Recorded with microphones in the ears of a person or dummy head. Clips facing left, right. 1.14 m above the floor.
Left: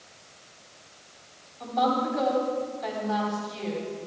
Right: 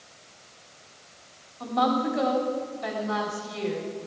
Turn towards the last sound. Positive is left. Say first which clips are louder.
# right 1 dB
turn(degrees=-40)  # may be behind; listen again after turning